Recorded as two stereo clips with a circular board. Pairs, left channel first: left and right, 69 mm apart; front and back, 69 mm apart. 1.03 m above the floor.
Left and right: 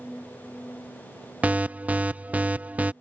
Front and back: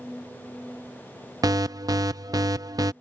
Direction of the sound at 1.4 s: 160° right.